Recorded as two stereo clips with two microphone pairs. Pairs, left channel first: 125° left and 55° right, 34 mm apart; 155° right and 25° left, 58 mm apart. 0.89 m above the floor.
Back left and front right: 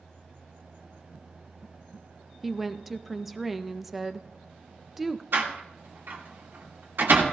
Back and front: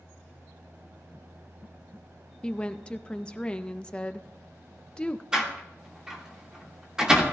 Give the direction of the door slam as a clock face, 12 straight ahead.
2 o'clock.